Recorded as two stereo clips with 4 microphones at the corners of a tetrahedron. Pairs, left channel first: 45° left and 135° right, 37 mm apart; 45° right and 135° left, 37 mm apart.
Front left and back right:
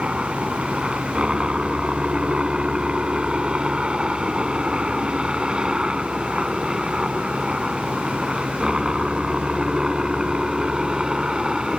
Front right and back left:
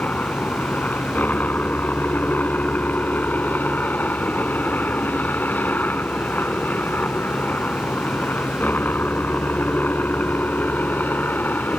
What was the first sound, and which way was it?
A helicopter, 75° right.